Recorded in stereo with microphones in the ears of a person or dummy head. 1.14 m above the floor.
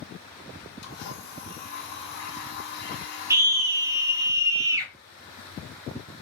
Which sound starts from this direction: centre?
A scream, at 3.3 s.